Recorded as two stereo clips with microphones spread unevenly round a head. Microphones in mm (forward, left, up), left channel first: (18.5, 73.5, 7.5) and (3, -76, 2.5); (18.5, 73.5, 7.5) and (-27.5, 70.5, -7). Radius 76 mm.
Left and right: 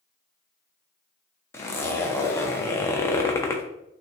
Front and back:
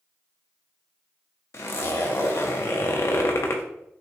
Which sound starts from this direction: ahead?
A zipper, at 1.5 s.